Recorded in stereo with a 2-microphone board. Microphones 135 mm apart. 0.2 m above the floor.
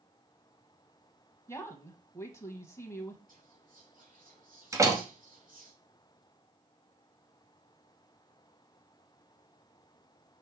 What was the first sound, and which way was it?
A woman speaking, 20° left (ahead or behind).